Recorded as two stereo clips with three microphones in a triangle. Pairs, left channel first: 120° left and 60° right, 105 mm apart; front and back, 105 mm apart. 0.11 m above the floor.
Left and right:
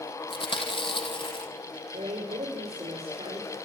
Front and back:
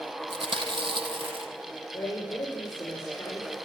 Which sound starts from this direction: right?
A woman speaking, at 1.9 s.